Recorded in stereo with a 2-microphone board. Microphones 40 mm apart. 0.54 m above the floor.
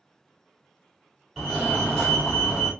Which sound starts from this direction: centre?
A fire alarm, at 1.4 s.